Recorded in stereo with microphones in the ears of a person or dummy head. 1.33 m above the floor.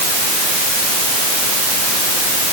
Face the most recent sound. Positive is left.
No sound to turn to.